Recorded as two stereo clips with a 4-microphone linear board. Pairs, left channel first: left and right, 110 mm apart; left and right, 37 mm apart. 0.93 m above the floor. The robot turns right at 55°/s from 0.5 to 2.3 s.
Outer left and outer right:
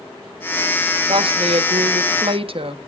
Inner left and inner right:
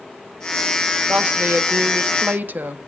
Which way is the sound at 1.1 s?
130° right.